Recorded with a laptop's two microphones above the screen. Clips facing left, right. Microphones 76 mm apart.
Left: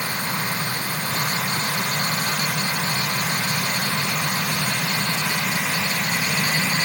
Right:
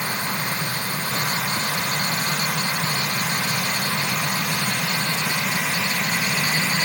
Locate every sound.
Only background noise.